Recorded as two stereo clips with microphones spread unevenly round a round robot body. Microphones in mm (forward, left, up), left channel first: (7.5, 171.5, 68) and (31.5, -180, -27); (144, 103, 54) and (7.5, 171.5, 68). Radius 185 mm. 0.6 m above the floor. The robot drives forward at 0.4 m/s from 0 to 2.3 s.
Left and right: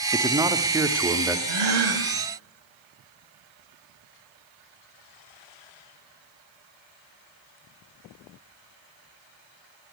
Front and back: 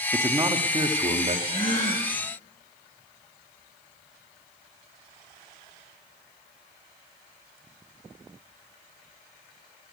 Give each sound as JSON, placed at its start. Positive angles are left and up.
{"t": 0.1, "sound": "a man speaking", "azimuth_deg": -135, "distance_m": 0.8}
{"t": 1.5, "sound": "a gasp", "azimuth_deg": -90, "distance_m": 2.5}